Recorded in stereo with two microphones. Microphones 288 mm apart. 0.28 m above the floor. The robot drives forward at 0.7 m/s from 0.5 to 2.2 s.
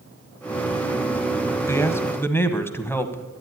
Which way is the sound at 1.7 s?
10° left (ahead or behind).